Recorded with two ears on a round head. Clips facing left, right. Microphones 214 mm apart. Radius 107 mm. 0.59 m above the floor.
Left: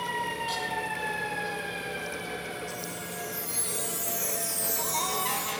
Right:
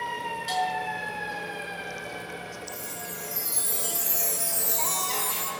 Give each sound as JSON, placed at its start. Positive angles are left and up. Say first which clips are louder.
{"t": 0.5, "sound": "a bell", "louder": "right 4 dB", "side_deg": -65, "distance_m": 6.0}
{"t": 2.7, "sound": "a chime", "louder": "left 2 dB", "side_deg": -55, "distance_m": 2.5}